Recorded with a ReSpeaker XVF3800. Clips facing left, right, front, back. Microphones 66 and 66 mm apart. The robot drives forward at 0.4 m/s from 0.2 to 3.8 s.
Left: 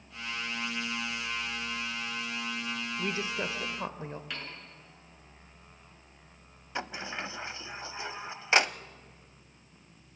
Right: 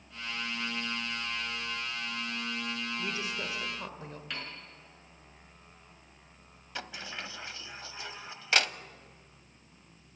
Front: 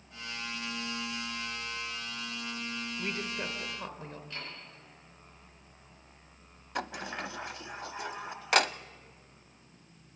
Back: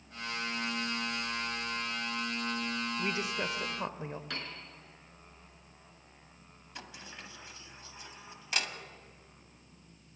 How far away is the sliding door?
About 0.6 m.